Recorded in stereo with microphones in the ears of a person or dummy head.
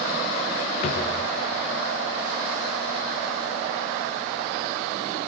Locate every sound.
0.8 s a drawer: 45° left (ahead or behind), 0.7 m